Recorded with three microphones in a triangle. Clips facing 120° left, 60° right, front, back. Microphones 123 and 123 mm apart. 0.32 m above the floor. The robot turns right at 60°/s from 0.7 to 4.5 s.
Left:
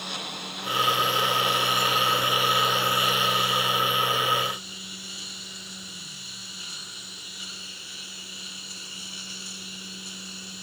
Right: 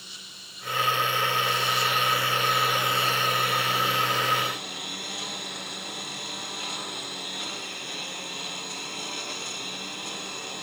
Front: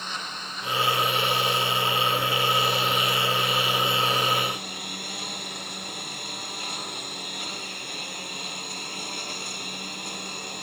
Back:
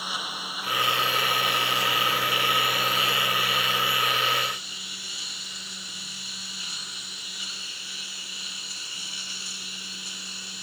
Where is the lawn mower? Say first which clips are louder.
Left 15 dB, back 1 dB; 100° left; by 10.6 s 35° right.